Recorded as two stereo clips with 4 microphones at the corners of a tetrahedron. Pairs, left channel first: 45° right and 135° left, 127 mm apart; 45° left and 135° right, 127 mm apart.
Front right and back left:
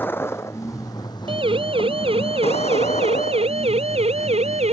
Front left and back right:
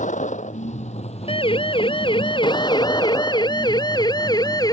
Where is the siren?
90° left; by 4.7 s 105° left.